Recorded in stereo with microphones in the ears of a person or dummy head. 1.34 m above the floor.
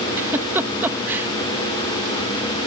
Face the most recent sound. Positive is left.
turn(degrees=-10)  # may be behind; listen again after turning